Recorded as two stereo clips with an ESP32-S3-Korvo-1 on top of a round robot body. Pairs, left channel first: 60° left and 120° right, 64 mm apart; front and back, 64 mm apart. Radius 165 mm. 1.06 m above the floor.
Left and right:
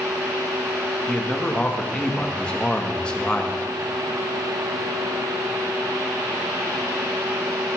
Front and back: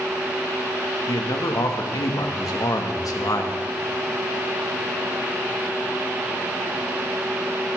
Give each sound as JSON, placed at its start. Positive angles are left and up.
{"t": 1.1, "sound": "a man speaking", "azimuth_deg": -15, "distance_m": 2.5}